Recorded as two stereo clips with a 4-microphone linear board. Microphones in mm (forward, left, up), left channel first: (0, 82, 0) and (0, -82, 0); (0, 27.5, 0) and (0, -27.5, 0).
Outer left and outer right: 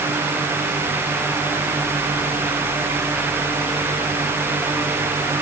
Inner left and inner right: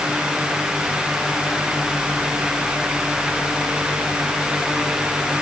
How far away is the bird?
No bird in this recording.